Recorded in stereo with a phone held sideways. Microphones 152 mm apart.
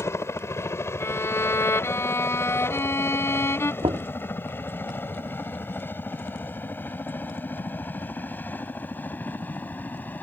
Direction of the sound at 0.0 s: 15° left (ahead or behind).